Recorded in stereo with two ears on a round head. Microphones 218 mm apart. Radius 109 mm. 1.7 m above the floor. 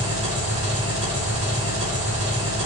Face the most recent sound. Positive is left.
turn(degrees=-30)  # may be behind; listen again after turning